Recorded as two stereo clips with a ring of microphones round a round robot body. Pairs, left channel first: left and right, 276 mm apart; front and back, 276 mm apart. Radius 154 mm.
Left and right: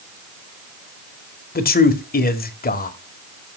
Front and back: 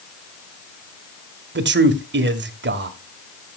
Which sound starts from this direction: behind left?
A man speaking, at 1.6 s.